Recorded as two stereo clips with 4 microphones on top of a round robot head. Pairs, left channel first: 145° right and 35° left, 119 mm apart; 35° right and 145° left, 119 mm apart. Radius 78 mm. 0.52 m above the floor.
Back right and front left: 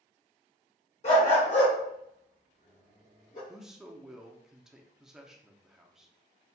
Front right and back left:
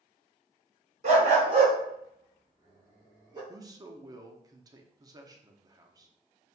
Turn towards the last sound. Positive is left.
turn(degrees=120)